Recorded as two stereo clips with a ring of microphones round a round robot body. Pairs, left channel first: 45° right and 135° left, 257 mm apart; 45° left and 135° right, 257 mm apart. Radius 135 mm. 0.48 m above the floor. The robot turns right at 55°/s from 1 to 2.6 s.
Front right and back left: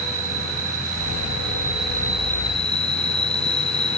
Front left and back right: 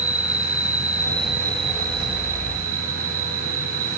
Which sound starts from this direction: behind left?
An insect, at 0.0 s.